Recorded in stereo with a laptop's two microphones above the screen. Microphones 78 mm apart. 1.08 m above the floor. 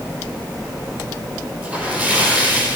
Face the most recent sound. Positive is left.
turn(degrees=-20)  # may be behind; listen again after turning